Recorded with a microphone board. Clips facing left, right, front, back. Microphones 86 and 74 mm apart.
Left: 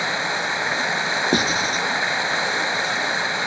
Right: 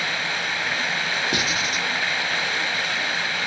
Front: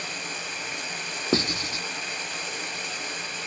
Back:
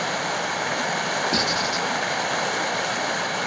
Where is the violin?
I don't hear a violin.